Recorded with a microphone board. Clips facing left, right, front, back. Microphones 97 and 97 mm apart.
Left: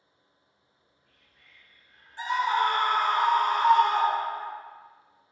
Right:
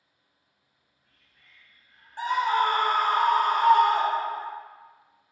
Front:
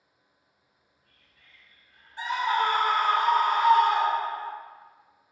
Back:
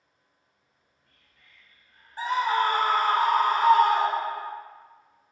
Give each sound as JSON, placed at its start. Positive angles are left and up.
{"t": 0.6, "sound": "whispering", "azimuth_deg": -170, "distance_m": 1.3}
{"t": 2.2, "sound": "a scream", "azimuth_deg": -125, "distance_m": 0.6}